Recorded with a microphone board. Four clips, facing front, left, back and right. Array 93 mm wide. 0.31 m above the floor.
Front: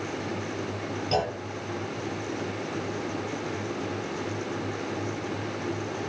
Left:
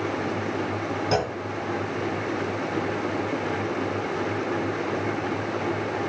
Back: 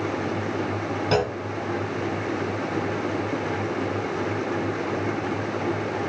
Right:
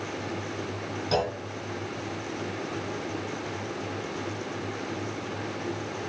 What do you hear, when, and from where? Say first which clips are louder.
1.1 s a clunk: left 1 dB, back 4 dB; 160° left, 2.5 m